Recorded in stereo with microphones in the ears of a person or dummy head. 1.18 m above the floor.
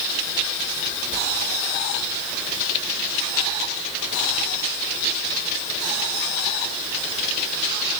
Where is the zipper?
I don't hear a zipper.